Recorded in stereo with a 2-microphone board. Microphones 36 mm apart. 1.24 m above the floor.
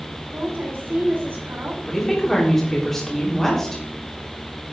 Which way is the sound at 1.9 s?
10° left (ahead or behind).